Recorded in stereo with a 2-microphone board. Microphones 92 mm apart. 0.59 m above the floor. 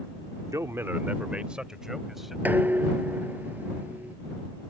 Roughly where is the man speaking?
Right.